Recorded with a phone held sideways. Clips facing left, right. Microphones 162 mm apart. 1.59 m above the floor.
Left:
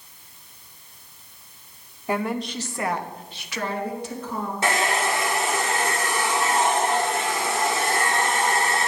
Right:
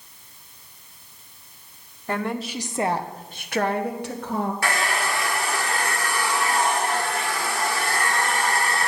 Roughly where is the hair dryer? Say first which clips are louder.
Left 2 dB; left.